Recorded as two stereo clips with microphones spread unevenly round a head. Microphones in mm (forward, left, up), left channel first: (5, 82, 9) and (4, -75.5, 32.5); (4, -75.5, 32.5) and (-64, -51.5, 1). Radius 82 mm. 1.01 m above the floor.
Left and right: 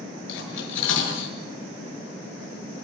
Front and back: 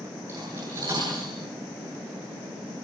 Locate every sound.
0.3 s cutlery clinking: 85° left, 9 m